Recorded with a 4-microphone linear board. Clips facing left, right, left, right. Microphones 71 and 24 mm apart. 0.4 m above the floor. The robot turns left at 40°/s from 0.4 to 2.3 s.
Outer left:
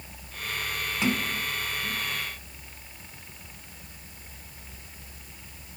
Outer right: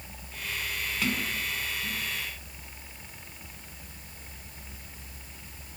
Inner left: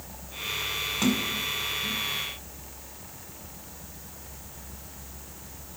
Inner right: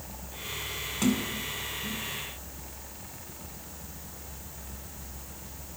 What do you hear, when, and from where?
1.0 s a sliding door: 25° left (ahead or behind), 4 m; by 2.0 s 15° right (ahead or behind), 4 m